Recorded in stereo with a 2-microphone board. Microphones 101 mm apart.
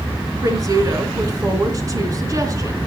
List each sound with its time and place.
0.4 s a woman speaking: 35° right (ahead or behind), 3 m